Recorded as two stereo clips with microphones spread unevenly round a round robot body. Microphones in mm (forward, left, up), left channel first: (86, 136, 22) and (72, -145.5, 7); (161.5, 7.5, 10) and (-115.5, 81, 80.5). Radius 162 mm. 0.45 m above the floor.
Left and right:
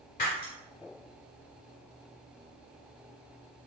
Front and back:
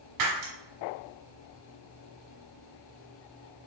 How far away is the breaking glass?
About 1.1 m.